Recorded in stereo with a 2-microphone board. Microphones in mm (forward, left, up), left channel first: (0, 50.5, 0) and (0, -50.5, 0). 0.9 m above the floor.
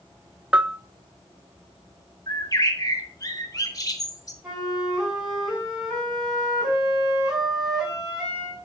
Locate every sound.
0.5 s a bell: 10° right (ahead or behind), 0.5 m
2.3 s a bird: 35° left (ahead or behind), 2 m
4.4 s a flute: 5° right (ahead or behind), 7.5 m